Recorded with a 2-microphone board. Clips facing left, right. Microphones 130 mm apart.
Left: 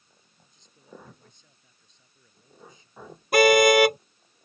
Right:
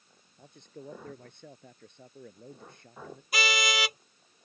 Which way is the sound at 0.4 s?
65° right (ahead or behind).